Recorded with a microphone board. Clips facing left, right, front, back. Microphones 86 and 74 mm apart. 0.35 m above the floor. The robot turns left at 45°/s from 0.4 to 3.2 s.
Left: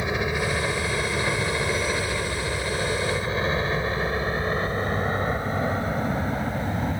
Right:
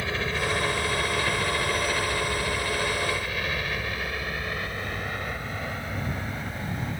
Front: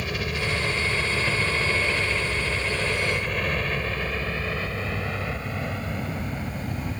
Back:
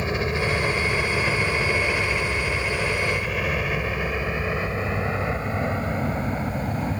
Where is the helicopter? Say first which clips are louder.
Left 3 dB, back 4 dB; 145° left; by 7.0 s 135° left.